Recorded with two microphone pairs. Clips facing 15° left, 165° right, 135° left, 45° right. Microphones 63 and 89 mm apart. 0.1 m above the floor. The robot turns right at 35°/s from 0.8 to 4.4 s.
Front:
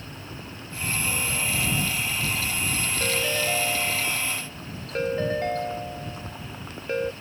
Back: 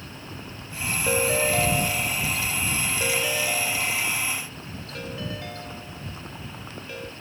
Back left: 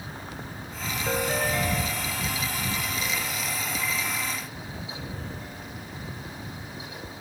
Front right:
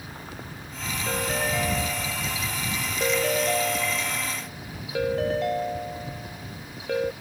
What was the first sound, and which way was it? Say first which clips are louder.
A ringtone: back 10 dB, back left 1 dB; 150° right.